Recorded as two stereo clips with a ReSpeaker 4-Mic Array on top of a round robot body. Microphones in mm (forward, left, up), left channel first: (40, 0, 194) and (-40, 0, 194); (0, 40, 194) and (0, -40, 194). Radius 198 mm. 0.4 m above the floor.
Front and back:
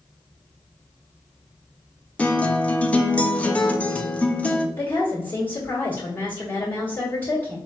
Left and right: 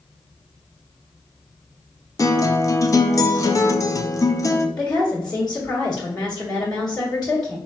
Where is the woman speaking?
65° left, 1.8 m.